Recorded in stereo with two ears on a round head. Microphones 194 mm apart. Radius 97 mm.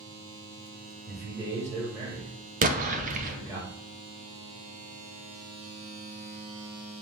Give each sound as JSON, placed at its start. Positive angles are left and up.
{"t": 1.1, "sound": "a man speaking", "side_deg": -15, "distance_m": 1.9}
{"t": 2.6, "sound": "an explosion", "side_deg": -35, "distance_m": 0.5}